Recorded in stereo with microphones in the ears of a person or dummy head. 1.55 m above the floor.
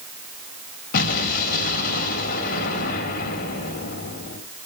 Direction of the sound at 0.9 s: 55° left (ahead or behind).